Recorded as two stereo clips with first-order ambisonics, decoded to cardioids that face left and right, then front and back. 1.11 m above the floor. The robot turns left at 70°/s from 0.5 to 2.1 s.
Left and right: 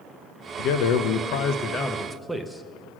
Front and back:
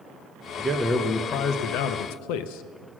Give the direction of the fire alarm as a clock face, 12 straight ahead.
No fire alarm in this recording.